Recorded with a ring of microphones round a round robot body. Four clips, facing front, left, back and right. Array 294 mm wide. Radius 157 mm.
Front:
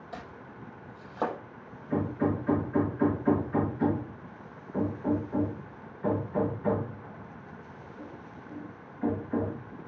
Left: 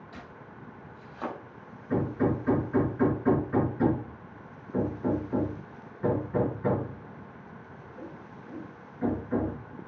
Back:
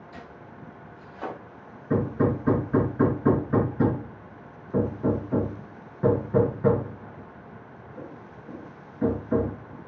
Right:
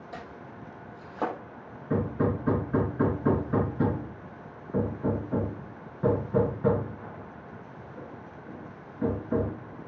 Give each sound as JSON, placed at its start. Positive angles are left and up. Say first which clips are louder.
{"t": 0.1, "sound": "chopping", "louder": "right 6 dB, front 3 dB", "azimuth_deg": -40, "distance_m": 5.5}
{"t": 1.9, "sound": "hammering", "louder": "even, back 4 dB", "azimuth_deg": -155, "distance_m": 3.5}